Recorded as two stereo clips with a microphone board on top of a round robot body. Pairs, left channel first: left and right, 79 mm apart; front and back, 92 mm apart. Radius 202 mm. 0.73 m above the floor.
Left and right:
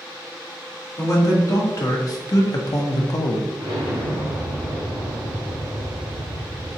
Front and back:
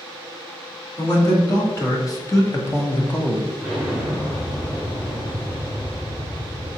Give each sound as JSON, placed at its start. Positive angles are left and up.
{"t": 1.0, "sound": "a man speaking", "azimuth_deg": 45, "distance_m": 1.9}
{"t": 3.6, "sound": "an explosion", "azimuth_deg": -75, "distance_m": 0.6}